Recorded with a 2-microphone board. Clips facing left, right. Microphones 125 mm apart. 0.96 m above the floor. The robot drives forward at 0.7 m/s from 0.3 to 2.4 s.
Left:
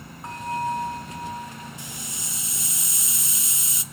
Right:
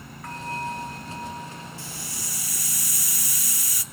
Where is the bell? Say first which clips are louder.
Left 4 dB; 25° left (ahead or behind), 2.5 m; by 1.7 s 15° left (ahead or behind), 3.5 m.